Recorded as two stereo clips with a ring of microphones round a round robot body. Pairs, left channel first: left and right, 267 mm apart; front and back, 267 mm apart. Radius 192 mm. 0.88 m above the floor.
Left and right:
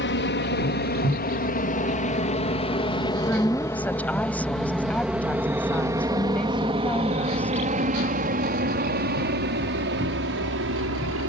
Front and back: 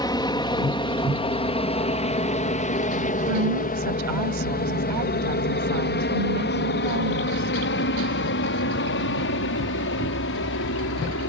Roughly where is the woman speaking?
Behind.